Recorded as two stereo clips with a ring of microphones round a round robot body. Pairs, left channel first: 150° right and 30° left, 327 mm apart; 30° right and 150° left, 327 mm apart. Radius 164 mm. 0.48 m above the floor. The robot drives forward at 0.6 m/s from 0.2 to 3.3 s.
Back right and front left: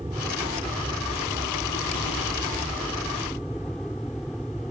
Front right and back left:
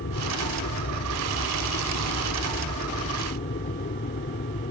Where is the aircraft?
50° right; by 4.7 s 65° right.